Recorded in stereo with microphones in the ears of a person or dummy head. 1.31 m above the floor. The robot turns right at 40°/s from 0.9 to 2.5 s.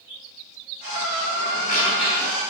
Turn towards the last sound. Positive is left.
turn(degrees=175)